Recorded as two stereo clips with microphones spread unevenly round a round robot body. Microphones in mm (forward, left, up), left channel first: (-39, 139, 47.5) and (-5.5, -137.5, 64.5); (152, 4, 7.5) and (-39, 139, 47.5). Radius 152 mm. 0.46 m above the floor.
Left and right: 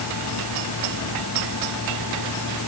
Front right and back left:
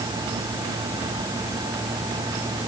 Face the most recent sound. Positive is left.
No sound to turn to.